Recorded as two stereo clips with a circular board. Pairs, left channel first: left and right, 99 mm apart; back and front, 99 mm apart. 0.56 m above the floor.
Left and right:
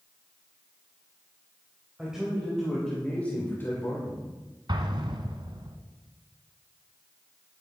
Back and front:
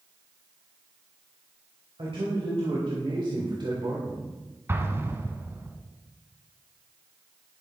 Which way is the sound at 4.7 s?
60° right.